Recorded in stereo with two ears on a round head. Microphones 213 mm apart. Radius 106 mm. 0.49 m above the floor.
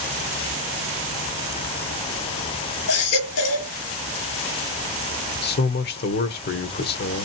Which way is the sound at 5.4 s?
45° left (ahead or behind).